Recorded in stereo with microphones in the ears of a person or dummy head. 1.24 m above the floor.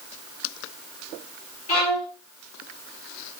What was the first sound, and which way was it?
A violin, 70° left (ahead or behind).